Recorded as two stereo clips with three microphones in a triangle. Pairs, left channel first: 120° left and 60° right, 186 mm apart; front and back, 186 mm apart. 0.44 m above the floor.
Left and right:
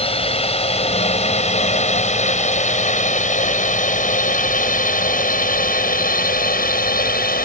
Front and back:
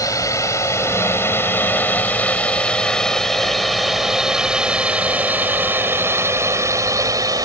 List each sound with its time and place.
0.0 s a drone: 70° left; by 7.5 s 115° left